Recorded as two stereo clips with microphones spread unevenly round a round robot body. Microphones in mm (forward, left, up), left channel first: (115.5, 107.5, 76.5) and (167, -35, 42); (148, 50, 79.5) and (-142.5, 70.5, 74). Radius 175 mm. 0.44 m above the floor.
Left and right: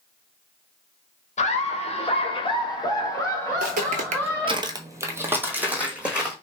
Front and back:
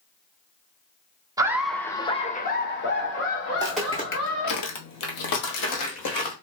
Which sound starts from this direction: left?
Laughter, at 1.4 s.